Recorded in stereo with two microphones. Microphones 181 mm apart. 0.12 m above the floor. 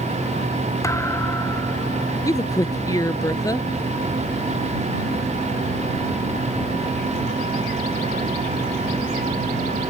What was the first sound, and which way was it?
A thud, 15° left (ahead or behind).